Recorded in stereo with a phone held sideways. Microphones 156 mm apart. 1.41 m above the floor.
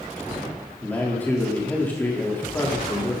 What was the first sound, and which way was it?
A man speaking, 10° left (ahead or behind).